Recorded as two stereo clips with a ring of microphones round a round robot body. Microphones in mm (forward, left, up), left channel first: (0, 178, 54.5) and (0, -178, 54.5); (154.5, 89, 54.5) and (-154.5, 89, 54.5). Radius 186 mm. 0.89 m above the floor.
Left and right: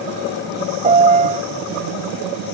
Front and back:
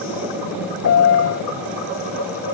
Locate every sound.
0.8 s a piano: 30° right